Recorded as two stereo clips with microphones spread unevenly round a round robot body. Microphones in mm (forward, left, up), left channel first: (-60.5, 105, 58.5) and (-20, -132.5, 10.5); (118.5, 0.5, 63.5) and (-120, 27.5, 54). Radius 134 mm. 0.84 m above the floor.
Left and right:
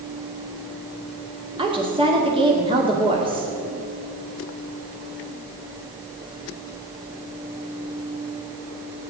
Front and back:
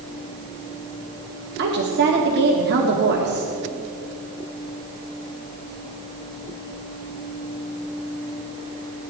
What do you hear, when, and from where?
1.6 s a woman speaking: 145° right, 2.5 m